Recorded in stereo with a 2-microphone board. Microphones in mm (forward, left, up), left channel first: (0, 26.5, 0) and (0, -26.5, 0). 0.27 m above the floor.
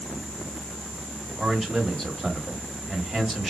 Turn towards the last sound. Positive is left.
turn(degrees=0)  # may be behind; listen again after turning